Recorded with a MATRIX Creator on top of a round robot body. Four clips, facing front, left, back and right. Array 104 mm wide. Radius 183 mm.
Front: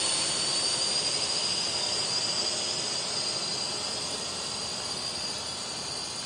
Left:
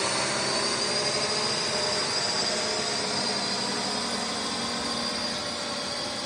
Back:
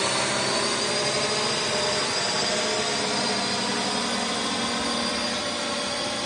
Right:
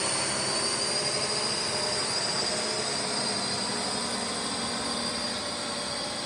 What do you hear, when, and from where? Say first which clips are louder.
0.0 s a drone: left 3 dB, back 10 dB; 160° left; by 6.3 s 175° left